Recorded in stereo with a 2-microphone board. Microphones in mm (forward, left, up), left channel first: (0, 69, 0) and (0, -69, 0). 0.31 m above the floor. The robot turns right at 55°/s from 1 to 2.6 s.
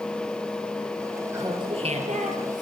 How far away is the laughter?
About 6 m.